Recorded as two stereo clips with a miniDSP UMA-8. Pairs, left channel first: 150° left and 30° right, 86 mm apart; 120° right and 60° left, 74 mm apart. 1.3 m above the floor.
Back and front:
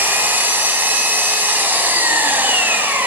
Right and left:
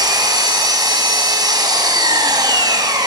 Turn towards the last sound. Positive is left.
turn(degrees=35)